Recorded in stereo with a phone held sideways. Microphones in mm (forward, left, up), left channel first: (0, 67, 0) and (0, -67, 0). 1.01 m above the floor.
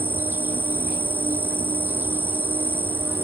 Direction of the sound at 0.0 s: 15° right (ahead or behind).